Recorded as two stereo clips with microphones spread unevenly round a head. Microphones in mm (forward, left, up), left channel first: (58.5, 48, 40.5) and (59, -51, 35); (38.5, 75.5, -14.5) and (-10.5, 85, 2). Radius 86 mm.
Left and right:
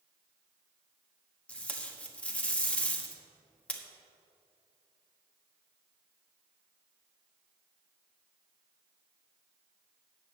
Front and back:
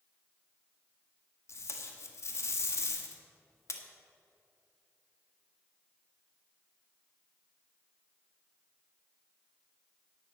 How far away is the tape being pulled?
About 1.5 m.